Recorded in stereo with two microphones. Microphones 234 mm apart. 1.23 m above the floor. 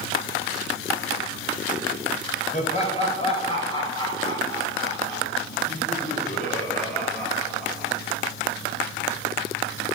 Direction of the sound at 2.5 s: 35° left (ahead or behind).